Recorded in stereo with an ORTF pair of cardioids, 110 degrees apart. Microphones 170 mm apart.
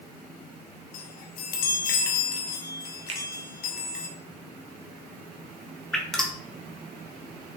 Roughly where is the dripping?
Ahead.